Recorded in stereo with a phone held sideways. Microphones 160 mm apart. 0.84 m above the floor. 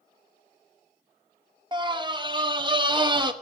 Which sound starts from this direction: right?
A scream, at 1.7 s.